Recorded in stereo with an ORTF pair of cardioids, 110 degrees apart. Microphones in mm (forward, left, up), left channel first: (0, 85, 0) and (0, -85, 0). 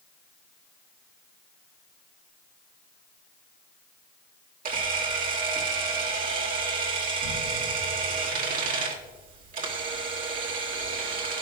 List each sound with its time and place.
4.7 s a camera shutter: 55° right, 2 m